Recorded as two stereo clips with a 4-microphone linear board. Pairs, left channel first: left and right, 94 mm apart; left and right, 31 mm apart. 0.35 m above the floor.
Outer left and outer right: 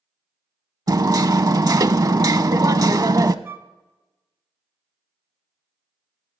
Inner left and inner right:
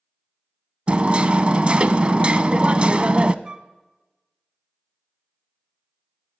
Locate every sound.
0.9 s hammering: 40° right (ahead or behind), 0.5 m
3.5 s a flute: 25° right (ahead or behind), 0.7 m